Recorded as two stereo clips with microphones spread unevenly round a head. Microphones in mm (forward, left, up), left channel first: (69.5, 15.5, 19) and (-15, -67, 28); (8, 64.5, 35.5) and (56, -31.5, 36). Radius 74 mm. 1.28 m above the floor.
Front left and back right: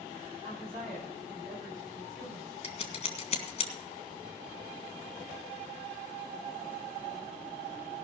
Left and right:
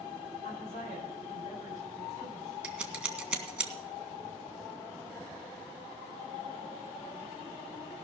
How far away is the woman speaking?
About 9.5 m.